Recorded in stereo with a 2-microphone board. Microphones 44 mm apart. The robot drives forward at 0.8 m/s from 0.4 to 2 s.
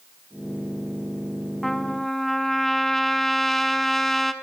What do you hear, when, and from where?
1.6 s a trumpet: 5° left (ahead or behind), 1.2 m